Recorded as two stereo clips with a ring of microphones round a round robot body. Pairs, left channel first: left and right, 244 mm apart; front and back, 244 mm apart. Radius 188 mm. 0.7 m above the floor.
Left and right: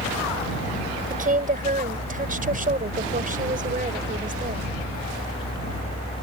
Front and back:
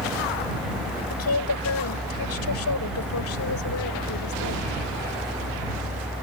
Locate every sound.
1.1 s a woman speaking: 35° right